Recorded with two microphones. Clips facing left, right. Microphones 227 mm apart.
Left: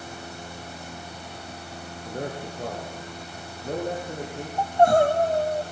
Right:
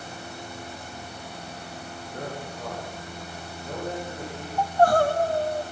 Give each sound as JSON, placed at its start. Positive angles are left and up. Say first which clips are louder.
{"t": 2.0, "sound": "a man speaking", "louder": "left 4 dB", "side_deg": 35, "distance_m": 7.5}
{"t": 4.6, "sound": "crying", "louder": "left 2 dB", "side_deg": 20, "distance_m": 2.5}